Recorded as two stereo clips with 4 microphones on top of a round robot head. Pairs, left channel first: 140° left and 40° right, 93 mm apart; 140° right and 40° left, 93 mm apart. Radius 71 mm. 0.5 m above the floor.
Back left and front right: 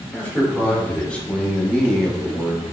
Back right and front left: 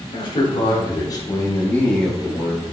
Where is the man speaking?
150° right, 1.9 m; by 2.6 s 45° left, 1.0 m.